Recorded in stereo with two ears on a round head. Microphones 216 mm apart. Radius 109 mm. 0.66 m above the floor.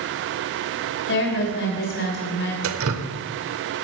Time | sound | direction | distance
1.1 | a woman speaking | 50° left (ahead or behind) | 3 m
2.6 | dripping | 65° right (ahead or behind) | 1.0 m